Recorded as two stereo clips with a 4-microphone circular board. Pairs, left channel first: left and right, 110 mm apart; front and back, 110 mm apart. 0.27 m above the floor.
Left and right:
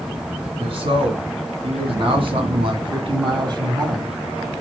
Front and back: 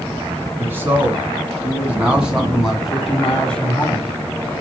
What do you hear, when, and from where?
0.6 s a man speaking: 115° right, 3 m; by 4.2 s 60° right, 1.5 m